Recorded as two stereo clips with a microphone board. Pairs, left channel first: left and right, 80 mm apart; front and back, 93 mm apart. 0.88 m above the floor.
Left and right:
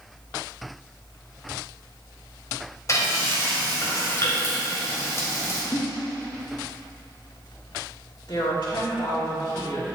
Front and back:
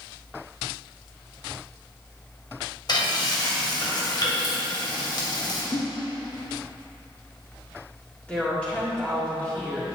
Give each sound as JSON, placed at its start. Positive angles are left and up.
{"t": 2.9, "sound": "frying", "azimuth_deg": 40, "distance_m": 2.0}
{"t": 5.7, "sound": "a giggle", "azimuth_deg": 35, "distance_m": 1.1}
{"t": 8.3, "sound": "a woman speaking", "azimuth_deg": 75, "distance_m": 2.5}